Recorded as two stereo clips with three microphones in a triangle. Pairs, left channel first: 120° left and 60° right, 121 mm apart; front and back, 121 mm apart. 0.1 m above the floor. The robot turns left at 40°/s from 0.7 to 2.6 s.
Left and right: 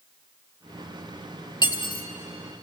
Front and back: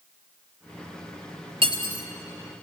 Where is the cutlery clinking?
160° left, 1.2 m; by 2.0 s 145° left, 1.2 m.